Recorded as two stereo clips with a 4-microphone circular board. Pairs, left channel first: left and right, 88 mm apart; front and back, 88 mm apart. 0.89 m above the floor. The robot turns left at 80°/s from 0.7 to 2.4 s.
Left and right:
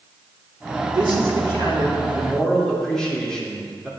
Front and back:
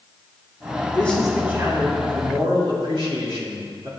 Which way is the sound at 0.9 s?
65° right.